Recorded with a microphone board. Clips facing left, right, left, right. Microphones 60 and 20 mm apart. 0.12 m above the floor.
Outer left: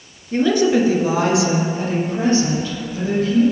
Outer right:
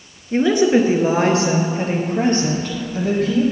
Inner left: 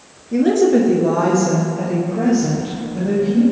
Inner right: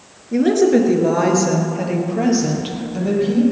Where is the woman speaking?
15° right (ahead or behind), 2 m; by 3.4 s 60° right (ahead or behind), 4.5 m.